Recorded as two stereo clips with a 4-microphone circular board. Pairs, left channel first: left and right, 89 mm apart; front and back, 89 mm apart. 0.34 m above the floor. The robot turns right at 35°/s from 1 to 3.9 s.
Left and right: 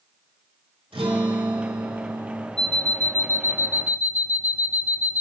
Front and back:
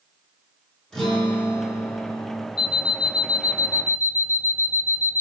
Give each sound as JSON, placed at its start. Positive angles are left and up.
{"t": 0.9, "sound": "a guitar", "azimuth_deg": -80, "distance_m": 5.5}
{"t": 2.6, "sound": "an alarm clock", "azimuth_deg": 10, "distance_m": 0.7}